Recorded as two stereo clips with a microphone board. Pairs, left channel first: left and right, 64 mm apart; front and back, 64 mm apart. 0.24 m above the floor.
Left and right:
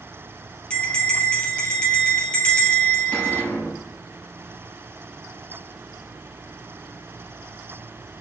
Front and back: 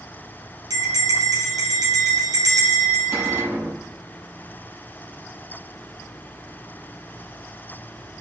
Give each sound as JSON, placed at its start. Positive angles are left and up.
{"t": 0.7, "sound": "a bell", "azimuth_deg": 165, "distance_m": 2.5}
{"t": 3.1, "sound": "a cupboard door", "azimuth_deg": 145, "distance_m": 4.0}